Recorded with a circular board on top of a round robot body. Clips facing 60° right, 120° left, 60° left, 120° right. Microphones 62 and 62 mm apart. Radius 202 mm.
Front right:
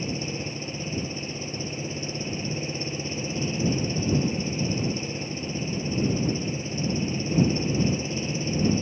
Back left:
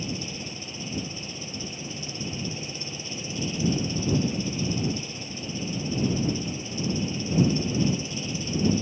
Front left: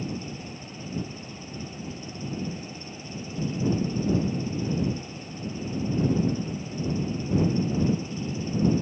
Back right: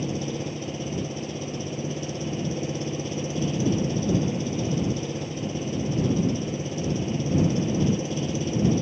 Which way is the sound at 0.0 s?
120° right.